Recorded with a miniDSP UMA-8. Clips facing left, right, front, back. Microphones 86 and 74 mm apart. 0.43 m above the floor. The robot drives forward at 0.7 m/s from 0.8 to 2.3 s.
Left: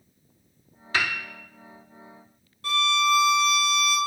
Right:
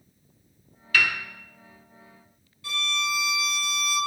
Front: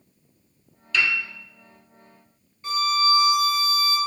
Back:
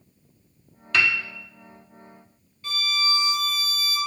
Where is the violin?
65° left, 0.9 m.